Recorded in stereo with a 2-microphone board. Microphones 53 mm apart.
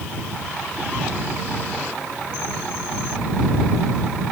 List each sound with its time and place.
Only background noise.